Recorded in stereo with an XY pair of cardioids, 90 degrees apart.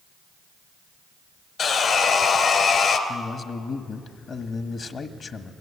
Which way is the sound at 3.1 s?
55° left.